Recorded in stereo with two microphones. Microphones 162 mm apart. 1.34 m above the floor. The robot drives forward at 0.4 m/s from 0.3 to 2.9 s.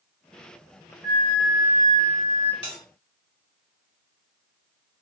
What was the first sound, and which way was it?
A flute, 70° left (ahead or behind).